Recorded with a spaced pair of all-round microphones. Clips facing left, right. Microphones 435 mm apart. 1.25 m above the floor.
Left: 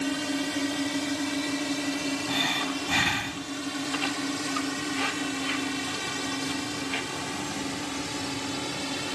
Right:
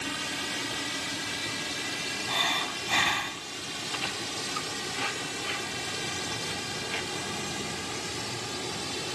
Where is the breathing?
30° left (ahead or behind).